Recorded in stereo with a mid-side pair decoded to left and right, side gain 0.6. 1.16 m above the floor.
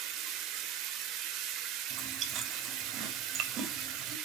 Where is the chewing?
50° right, 3.5 m.